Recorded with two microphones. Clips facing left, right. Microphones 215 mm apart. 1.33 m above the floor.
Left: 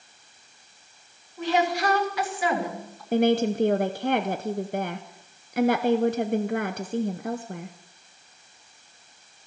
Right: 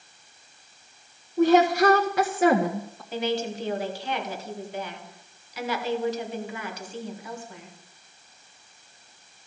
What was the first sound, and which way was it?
A woman speaking, 50° right (ahead or behind).